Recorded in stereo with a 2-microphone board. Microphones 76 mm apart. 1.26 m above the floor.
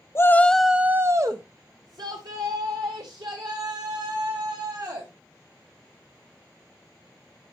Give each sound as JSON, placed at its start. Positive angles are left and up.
{"t": 0.1, "sound": "a shout", "side_deg": 35, "distance_m": 0.7}